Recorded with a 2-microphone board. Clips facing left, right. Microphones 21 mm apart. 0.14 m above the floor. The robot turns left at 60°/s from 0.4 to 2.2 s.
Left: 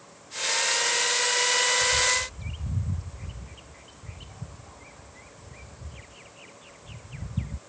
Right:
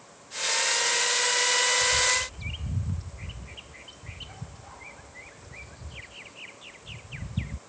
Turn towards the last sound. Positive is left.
turn(degrees=-30)  # may be behind; listen again after turning